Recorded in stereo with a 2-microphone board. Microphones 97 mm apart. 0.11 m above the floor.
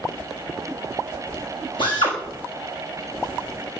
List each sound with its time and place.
1.8 s a drill: 50° left (ahead or behind), 6.5 m